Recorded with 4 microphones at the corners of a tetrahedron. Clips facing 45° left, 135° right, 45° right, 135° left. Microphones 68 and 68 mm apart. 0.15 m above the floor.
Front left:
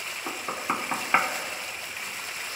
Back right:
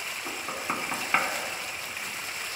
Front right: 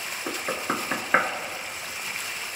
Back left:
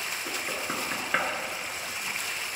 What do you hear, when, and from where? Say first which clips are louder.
0.3 s knocking: front left 3 dB, front right 7 dB; 15° right, 1.0 m